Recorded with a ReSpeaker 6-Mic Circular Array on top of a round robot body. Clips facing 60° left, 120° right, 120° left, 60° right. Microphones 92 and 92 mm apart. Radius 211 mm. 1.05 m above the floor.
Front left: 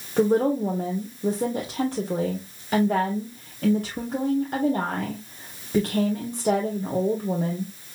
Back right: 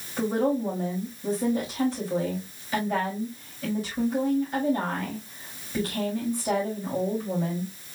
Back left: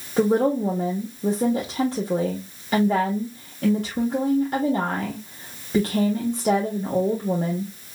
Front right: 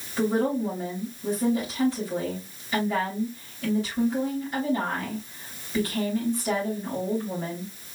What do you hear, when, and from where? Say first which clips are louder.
0.2 s a woman speaking: front left 4 dB, back left 5 dB; 90° left, 1.5 m